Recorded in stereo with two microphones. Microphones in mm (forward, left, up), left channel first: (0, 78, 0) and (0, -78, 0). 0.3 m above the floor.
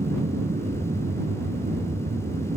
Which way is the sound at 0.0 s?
60° right (ahead or behind).